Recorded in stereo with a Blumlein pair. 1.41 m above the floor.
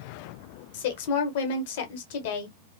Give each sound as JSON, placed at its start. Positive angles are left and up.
{"t": 0.7, "sound": "a woman speaking", "azimuth_deg": 55, "distance_m": 1.2}